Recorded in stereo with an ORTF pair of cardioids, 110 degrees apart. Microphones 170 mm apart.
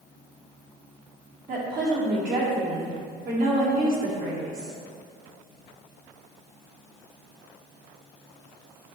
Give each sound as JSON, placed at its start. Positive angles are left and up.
{"t": 1.5, "sound": "a woman speaking", "azimuth_deg": -60, "distance_m": 2.0}